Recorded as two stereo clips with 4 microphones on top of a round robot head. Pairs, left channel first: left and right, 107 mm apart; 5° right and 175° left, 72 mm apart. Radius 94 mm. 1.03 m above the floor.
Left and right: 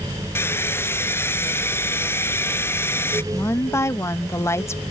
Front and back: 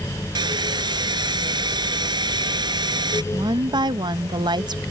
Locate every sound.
0.3 s a hair dryer: 160° left
3.3 s a woman speaking: 155° left